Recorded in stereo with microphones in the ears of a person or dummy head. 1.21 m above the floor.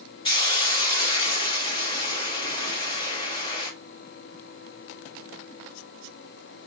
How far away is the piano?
I don't hear a piano.